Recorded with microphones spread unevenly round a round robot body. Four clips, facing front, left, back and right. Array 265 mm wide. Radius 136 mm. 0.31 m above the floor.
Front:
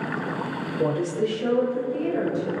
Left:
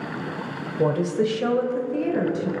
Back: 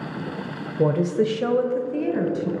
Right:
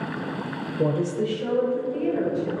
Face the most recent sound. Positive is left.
turn(degrees=130)